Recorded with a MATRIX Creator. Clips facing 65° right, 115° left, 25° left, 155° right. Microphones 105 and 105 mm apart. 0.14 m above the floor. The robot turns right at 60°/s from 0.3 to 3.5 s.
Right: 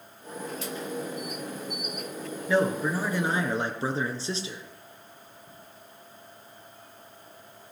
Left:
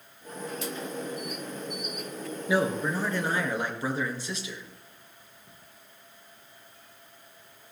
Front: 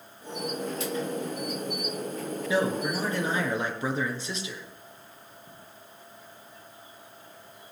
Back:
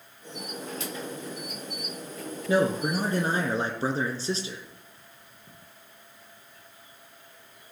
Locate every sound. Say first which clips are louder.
2.5 s a man speaking: right 2 dB, back 3 dB; 175° right, 2.0 m; by 4.6 s 115° right, 2.0 m